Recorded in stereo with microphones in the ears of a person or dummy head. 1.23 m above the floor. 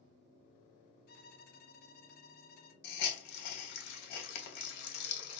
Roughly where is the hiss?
Left.